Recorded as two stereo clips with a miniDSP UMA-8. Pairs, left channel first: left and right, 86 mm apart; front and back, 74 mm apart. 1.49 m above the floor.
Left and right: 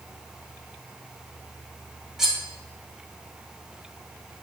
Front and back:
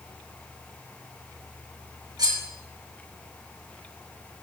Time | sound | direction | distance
2.2 | cutlery clinking | 175° right | 1.4 m